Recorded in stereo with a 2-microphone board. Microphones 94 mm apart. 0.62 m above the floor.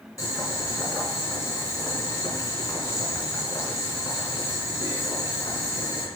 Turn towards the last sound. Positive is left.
turn(degrees=35)  # may be behind; listen again after turning